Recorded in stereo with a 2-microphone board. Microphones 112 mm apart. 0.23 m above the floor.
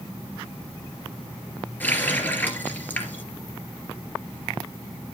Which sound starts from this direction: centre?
A running tap, at 1.8 s.